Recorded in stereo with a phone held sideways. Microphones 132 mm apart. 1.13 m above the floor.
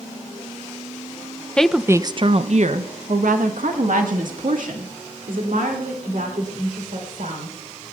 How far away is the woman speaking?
About 0.6 m.